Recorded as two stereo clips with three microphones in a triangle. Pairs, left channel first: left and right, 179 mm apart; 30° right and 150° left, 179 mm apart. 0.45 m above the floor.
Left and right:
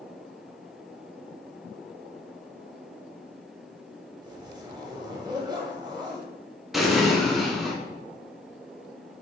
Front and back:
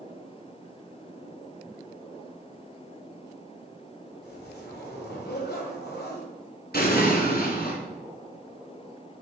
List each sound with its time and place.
4.2 s a zipper: 25° right, 2 m
6.7 s an explosion: straight ahead, 2 m